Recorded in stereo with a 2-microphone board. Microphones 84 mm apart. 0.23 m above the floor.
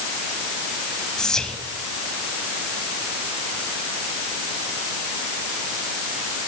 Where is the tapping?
No tapping in this recording.